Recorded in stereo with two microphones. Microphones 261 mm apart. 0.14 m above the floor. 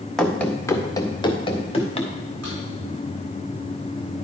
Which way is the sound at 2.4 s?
80° right.